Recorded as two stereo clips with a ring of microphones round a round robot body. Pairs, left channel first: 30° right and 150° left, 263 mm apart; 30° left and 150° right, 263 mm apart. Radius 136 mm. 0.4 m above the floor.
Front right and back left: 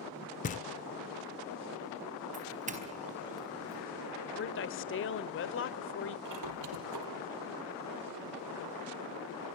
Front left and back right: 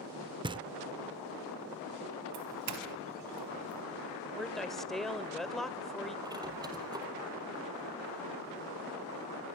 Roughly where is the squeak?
Behind left.